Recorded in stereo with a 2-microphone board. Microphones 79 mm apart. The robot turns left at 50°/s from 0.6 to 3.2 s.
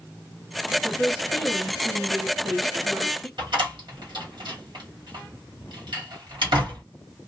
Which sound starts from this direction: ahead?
A woman speaking, at 0.8 s.